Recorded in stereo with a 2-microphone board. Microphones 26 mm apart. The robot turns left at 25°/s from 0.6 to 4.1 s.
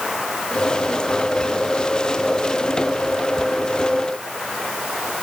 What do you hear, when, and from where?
Only background noise.